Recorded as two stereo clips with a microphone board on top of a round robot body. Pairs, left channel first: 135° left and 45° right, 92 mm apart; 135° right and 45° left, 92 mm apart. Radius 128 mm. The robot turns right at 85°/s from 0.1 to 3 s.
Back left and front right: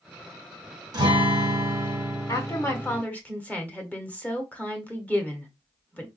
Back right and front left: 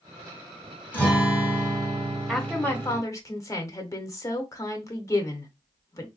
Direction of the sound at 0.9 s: 70° right.